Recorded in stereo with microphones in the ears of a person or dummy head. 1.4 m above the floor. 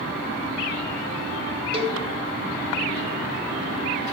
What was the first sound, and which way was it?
A cowbell, 30° right (ahead or behind).